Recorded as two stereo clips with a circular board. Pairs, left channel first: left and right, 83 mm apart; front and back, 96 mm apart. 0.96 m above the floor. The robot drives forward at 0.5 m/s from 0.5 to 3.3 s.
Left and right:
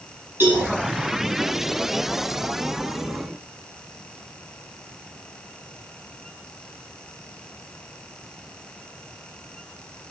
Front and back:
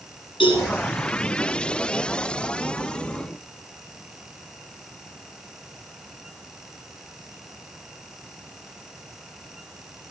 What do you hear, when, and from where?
0.4 s a cowbell: 25° right, 9.5 m